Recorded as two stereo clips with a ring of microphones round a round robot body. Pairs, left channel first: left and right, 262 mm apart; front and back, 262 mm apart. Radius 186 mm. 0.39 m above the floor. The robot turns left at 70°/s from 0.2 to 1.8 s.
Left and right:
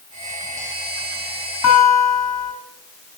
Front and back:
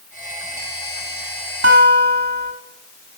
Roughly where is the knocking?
No knocking in this recording.